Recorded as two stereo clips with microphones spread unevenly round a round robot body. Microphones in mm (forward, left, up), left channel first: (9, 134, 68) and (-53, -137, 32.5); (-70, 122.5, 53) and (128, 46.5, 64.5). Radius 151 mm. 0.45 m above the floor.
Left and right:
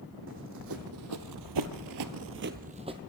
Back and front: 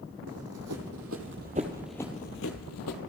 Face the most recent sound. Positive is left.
turn(degrees=180)